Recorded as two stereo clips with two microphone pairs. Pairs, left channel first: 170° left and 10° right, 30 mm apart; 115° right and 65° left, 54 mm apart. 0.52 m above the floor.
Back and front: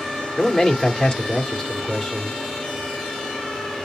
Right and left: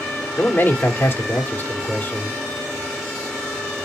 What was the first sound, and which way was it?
A man speaking, 140° right.